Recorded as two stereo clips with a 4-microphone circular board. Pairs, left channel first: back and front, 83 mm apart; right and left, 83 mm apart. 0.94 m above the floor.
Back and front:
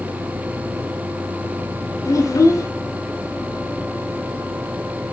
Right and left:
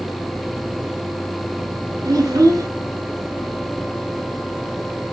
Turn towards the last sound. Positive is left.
turn(degrees=135)